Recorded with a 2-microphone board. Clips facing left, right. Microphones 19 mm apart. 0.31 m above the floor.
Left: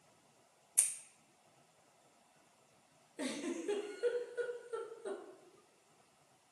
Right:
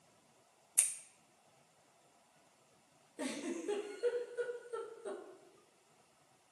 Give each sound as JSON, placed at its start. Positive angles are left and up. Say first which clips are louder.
{"t": 0.8, "sound": "scissors", "louder": "right 1 dB", "side_deg": -35, "distance_m": 0.8}
{"t": 3.2, "sound": "a giggle", "louder": "left 1 dB", "side_deg": 15, "distance_m": 1.1}